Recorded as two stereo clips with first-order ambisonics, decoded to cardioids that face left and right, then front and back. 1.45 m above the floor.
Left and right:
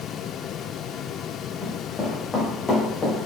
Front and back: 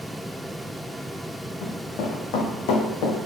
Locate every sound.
1.6 s running footsteps: 10° left, 3 m; by 3.2 s 15° left, 4 m